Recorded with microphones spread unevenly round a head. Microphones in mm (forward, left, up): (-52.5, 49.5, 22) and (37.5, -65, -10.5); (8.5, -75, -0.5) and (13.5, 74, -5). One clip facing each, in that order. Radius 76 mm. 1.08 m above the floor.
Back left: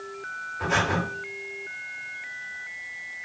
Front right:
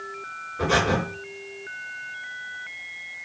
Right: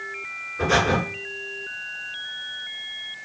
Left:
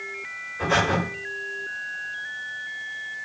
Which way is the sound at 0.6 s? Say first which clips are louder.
Front right 4 dB, right 2 dB; 55° right.